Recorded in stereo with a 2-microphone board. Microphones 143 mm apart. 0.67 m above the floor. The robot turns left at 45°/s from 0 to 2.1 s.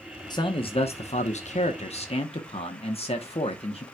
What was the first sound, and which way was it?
A man speaking, 140° left.